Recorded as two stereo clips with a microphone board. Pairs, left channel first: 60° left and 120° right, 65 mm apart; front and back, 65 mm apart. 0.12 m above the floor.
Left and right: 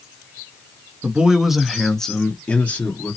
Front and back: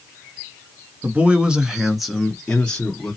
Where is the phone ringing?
No phone ringing in this recording.